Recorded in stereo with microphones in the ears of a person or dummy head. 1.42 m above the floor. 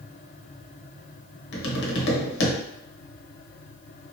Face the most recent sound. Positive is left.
turn(degrees=60)  # may be behind; listen again after turning